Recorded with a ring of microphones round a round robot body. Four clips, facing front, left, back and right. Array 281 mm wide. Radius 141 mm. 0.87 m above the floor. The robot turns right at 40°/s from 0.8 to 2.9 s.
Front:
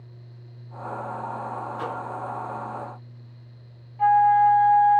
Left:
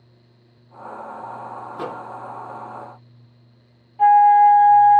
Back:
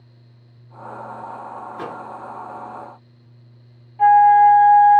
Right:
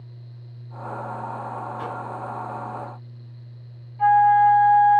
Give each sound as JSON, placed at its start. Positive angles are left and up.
{"t": 1.7, "sound": "a microwave", "azimuth_deg": 110, "distance_m": 0.7}
{"t": 4.0, "sound": "a flute", "azimuth_deg": 130, "distance_m": 0.7}